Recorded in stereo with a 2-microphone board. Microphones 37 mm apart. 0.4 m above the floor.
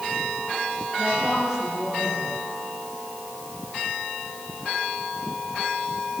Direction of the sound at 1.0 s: 20° right (ahead or behind).